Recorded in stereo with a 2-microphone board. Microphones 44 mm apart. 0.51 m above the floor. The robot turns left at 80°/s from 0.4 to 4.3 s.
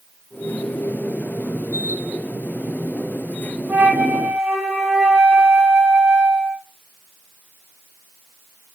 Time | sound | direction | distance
3.7 | a flute | 130° right | 3.5 m